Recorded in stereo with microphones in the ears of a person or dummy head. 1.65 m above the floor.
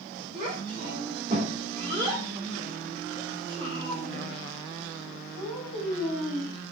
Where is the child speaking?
50° right (ahead or behind), 4.5 m; by 6.7 s 10° right (ahead or behind), 5 m.